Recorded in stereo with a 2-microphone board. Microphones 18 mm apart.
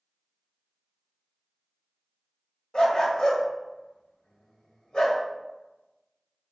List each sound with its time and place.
2.7 s a dog barking: 50° left (ahead or behind), 0.9 m